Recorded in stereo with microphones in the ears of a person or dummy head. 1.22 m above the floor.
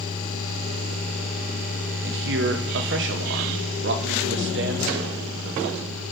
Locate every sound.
2.0 s a man speaking: 55° right (ahead or behind), 1.1 m